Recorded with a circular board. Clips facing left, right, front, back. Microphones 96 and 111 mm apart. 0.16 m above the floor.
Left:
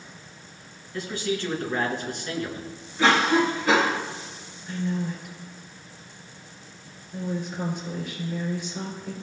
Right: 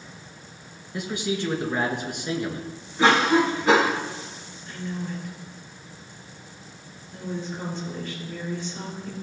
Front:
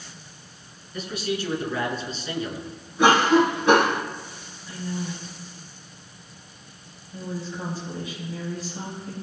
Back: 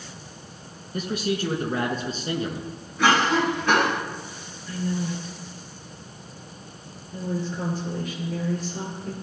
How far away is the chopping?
No chopping in this recording.